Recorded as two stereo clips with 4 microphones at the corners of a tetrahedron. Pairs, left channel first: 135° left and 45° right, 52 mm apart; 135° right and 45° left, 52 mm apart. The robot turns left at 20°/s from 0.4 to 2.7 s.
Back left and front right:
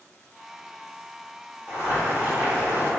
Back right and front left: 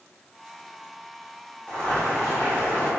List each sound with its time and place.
1.7 s boiling: 60° right, 1.8 m; by 2.9 s 80° right, 1.8 m